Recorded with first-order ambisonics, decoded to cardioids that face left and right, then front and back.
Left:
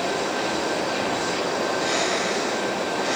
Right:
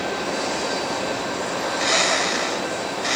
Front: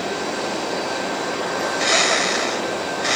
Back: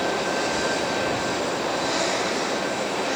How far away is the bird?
About 1.4 m.